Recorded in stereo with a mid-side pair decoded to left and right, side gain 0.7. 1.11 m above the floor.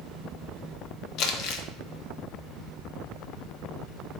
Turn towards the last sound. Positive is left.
turn(degrees=60)